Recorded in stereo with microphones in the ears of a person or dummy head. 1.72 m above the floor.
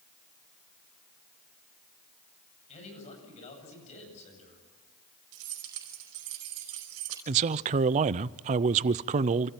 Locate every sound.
2.7 s a man speaking: 35° left (ahead or behind), 9 m
5.3 s keys jangling: 70° right (ahead or behind), 5 m
7.3 s a man speaking: 35° right (ahead or behind), 0.6 m